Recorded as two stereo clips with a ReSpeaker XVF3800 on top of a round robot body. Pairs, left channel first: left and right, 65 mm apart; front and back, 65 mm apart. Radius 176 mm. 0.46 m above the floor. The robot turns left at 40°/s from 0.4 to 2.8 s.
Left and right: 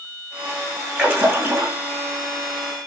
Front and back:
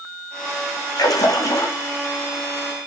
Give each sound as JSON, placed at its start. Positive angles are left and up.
{"t": 0.9, "sound": "a splash", "azimuth_deg": -20, "distance_m": 6.5}